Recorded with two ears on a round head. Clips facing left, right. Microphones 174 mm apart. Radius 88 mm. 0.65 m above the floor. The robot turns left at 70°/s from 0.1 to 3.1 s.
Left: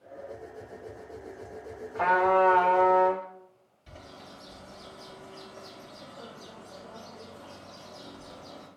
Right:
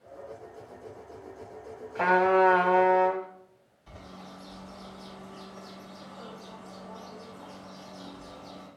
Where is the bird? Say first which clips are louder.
Right 1 dB; 20° left (ahead or behind), 3 m.